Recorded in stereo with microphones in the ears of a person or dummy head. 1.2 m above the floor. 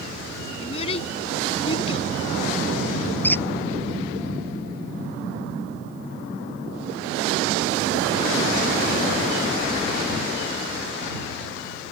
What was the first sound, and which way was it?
A child speaking, 30° left (ahead or behind).